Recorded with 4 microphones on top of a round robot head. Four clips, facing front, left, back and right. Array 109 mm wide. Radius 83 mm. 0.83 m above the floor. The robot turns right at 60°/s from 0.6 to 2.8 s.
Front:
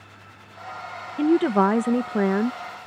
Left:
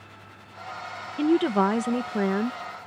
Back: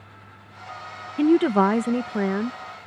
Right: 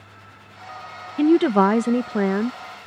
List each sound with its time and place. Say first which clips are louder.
1.2 s a woman speaking: right 6 dB, back 1 dB; 110° right; by 2.6 s 25° right